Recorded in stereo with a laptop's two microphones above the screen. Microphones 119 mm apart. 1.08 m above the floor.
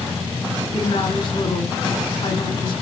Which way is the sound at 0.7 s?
45° left (ahead or behind).